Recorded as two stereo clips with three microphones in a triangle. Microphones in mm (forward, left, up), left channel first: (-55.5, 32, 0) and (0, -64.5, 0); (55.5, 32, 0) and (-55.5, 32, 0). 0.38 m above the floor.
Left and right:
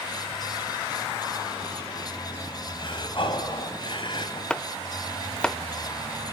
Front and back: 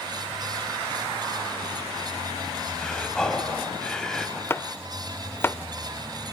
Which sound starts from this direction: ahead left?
Chopping, at 4.5 s.